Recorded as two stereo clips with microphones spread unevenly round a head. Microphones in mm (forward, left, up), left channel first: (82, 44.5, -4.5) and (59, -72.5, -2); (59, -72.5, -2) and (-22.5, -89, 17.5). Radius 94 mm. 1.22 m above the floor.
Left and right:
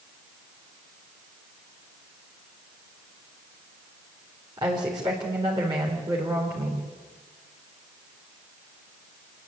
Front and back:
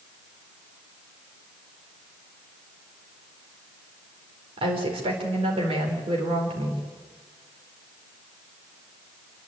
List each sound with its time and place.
4.6 s a woman speaking: 170° right, 4 m